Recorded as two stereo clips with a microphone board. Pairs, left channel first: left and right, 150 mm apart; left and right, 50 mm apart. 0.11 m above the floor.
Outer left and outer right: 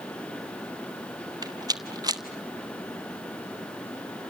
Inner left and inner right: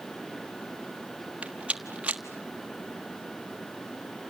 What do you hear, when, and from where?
1.4 s a rattle: 25° right (ahead or behind), 1.3 m